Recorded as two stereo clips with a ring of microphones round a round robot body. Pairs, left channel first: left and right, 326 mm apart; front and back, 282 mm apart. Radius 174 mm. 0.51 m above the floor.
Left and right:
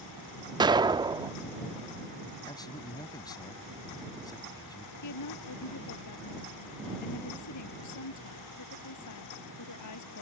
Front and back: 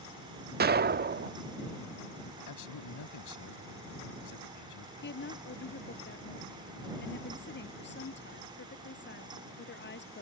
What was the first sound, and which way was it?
An explosion, 160° right.